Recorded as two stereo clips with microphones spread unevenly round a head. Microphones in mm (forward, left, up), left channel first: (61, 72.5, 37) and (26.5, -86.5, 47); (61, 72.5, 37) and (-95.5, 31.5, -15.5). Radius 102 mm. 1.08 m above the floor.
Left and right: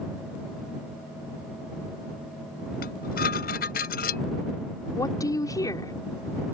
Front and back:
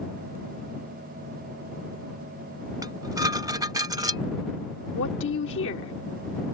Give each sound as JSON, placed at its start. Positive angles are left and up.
{"t": 2.8, "sound": "dishes clattering", "azimuth_deg": 125}
{"t": 5.0, "sound": "a woman speaking", "azimuth_deg": 10}